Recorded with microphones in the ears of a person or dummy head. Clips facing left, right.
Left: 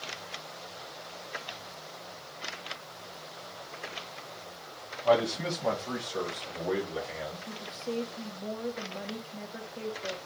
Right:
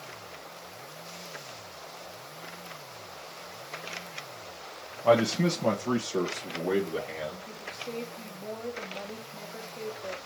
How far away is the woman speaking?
About 1.1 m.